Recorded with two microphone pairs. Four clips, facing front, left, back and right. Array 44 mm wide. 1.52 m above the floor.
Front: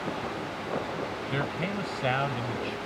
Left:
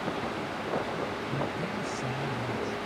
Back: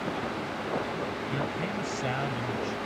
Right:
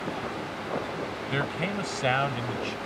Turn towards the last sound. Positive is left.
turn(degrees=-65)